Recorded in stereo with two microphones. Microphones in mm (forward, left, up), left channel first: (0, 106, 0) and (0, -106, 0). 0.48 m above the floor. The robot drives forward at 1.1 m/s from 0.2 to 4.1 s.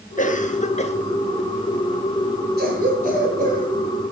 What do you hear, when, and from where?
0.2 s a cough: 35° left (ahead or behind), 1.3 m; by 0.9 s 30° left (ahead or behind), 1.5 m
2.6 s a cough: 50° right (ahead or behind), 6 m; by 3.7 s 40° right (ahead or behind), 7 m